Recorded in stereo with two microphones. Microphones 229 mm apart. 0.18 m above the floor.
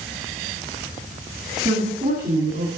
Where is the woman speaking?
30° right (ahead or behind), 2.5 m; by 2.7 s 40° right (ahead or behind), 3.5 m.